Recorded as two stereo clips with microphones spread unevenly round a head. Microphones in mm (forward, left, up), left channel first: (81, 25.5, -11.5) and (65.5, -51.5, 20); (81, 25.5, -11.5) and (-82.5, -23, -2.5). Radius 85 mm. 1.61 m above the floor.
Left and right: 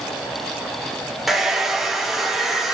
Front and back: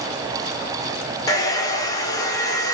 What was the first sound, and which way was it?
A hair dryer, 50° right.